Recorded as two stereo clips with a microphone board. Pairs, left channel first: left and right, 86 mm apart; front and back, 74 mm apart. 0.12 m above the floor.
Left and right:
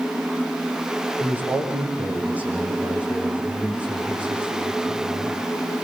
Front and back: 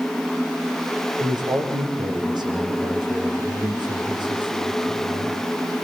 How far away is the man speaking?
About 7 m.